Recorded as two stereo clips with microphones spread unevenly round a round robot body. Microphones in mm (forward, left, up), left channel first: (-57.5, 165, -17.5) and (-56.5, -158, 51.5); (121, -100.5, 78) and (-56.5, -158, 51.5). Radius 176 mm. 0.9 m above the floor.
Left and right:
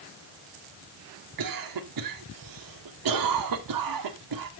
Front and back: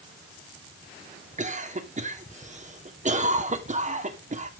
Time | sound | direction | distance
1.4 | a cough | 115° right | 3 m